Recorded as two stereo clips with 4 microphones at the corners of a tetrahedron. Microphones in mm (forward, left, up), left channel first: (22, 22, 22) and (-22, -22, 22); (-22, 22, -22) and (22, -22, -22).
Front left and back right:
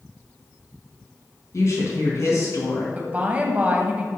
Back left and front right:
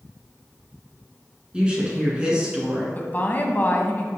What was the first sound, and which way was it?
A woman speaking, 25° left.